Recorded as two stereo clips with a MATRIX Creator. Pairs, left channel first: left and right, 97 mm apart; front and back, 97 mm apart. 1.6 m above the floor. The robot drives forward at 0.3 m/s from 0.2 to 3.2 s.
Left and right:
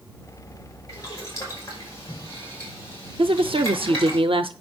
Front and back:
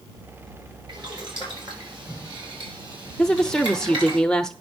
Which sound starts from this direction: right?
A woman speaking, at 3.2 s.